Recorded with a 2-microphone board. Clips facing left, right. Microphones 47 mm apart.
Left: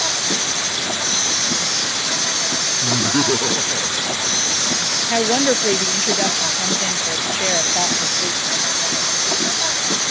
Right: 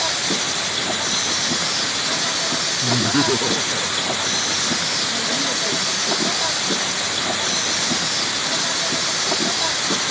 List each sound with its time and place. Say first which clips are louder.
0.0 s an insect: even; 5° right (ahead or behind)
2.8 s laughter: even; 5° left (ahead or behind)
5.1 s a woman speaking: left 6 dB; 65° left (ahead or behind)